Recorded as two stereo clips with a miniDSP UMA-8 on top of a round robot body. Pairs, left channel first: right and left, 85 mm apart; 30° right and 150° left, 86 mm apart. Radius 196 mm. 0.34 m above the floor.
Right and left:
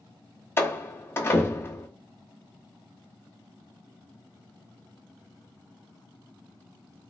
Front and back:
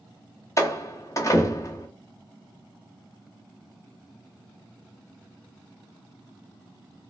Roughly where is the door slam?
Ahead right.